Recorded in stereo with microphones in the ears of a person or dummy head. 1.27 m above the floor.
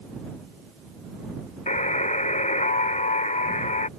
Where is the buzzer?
35° left (ahead or behind).